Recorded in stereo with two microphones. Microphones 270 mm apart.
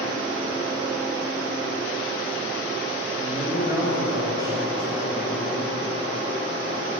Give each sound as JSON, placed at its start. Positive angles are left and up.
{"t": 3.2, "sound": "a man speaking", "side_deg": -20, "distance_m": 4.5}